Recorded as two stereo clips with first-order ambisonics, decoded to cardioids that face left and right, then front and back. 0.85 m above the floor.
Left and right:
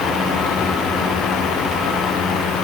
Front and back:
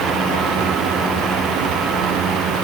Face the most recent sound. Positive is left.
No sound to turn to.